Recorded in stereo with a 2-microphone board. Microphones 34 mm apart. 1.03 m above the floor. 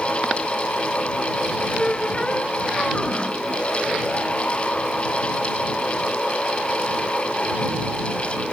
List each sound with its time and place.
1.8 s a squeak: 25° left (ahead or behind)